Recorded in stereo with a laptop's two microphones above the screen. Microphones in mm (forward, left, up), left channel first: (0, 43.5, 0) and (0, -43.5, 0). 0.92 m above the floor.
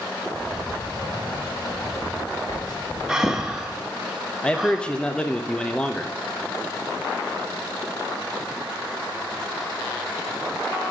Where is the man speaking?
10° left (ahead or behind), 0.6 m.